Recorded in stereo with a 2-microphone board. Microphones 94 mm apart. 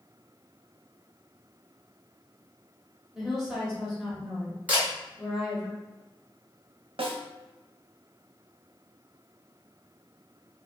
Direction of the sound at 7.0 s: 75° right (ahead or behind).